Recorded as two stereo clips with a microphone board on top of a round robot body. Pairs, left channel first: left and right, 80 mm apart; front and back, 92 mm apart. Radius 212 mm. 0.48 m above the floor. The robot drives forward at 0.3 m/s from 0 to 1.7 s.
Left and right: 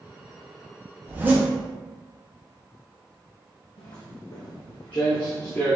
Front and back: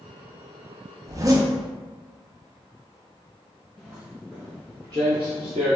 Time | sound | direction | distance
1.0 | a zipper | 140° right | 0.9 m
3.8 | footsteps | 90° left | 1.0 m